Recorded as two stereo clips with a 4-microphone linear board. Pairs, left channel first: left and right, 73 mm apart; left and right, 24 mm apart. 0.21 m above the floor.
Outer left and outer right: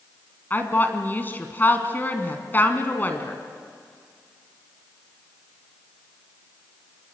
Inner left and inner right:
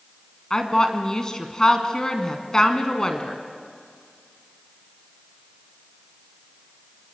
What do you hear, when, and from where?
0.5 s a woman speaking: 25° left (ahead or behind), 2.5 m